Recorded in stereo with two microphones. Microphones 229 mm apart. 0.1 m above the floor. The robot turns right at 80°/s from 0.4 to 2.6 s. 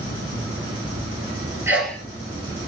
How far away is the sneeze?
About 1.7 m.